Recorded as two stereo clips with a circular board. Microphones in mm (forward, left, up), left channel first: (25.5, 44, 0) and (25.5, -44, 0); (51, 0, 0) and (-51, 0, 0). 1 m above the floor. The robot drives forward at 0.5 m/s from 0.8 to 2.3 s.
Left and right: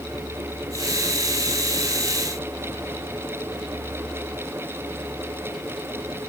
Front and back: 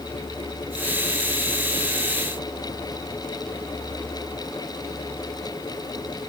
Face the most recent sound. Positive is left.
No sound to turn to.